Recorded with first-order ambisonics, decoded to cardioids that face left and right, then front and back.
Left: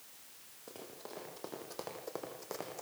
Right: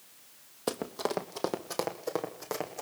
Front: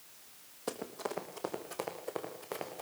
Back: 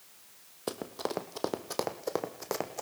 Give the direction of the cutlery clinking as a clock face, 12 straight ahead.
I don't hear cutlery clinking.